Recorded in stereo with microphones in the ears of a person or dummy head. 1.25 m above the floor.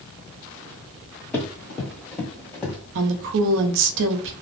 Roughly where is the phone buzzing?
I don't hear a phone buzzing.